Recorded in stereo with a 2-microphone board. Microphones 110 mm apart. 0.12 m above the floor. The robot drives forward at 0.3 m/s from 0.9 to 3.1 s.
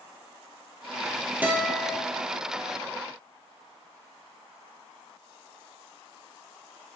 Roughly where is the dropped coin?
I don't hear a dropped coin.